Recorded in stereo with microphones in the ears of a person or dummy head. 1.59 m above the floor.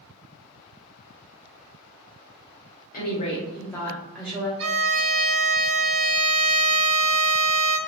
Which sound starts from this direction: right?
A violin, at 4.6 s.